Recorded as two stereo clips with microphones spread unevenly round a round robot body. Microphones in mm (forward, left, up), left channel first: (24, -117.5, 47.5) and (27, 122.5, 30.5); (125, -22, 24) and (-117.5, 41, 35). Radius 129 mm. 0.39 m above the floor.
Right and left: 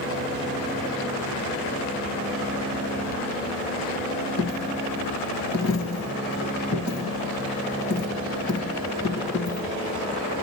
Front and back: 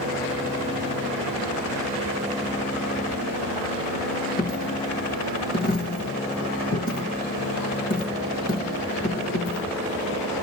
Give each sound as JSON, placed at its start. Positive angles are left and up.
{"t": 4.4, "sound": "a dropped coin", "azimuth_deg": -70, "distance_m": 1.6}